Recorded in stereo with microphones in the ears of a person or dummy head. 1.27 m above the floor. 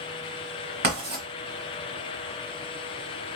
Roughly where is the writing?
Right.